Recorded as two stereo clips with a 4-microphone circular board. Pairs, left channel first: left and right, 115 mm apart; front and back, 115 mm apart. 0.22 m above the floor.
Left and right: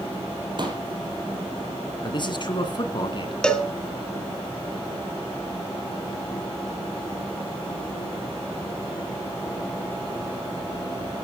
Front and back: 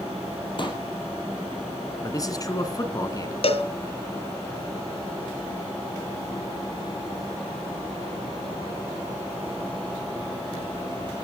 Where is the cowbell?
5° left, 1.6 m.